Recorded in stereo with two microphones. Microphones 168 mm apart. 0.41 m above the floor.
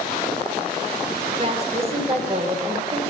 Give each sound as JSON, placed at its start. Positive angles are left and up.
{"t": 1.4, "sound": "a woman speaking", "side_deg": -35, "distance_m": 1.0}